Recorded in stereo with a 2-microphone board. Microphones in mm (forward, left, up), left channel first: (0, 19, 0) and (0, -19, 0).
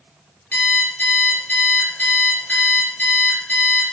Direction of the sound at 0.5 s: 45° left (ahead or behind).